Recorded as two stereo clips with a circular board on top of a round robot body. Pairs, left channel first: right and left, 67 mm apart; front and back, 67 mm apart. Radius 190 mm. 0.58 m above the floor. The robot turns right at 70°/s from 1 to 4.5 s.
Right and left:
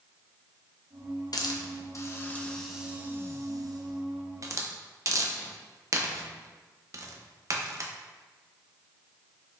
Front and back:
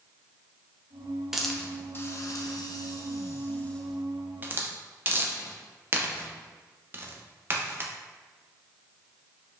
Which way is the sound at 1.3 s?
95° right.